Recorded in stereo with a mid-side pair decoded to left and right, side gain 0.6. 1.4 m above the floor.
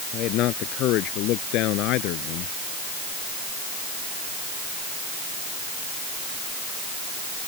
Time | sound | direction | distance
0.1 | a man speaking | 60° left | ?